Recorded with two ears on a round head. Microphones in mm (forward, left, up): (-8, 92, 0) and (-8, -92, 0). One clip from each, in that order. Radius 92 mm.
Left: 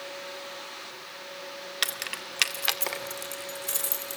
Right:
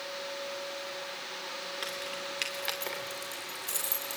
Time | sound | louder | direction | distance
1.8 | keys jangling | left 9 dB | 65° left (ahead or behind) | 1.9 m